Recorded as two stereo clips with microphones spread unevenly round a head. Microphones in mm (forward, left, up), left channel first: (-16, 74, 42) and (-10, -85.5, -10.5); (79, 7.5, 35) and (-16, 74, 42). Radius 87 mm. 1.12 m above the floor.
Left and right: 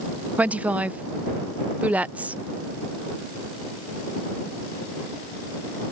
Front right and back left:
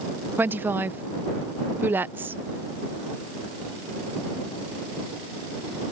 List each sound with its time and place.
0.4 s a woman speaking: 145° right